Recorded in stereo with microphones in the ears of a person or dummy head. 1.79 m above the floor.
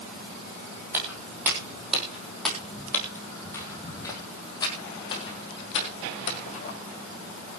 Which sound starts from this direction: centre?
Footsteps, at 0.9 s.